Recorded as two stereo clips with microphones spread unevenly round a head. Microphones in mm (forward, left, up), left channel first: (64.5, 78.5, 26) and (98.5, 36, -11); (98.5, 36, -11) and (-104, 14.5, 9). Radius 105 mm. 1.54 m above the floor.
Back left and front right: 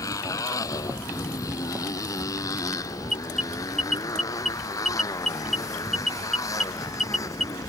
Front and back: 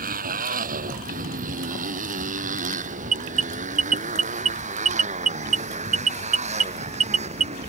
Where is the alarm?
120° right.